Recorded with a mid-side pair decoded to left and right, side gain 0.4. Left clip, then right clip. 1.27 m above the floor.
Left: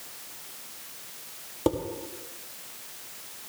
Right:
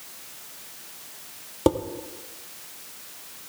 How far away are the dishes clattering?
About 1.5 m.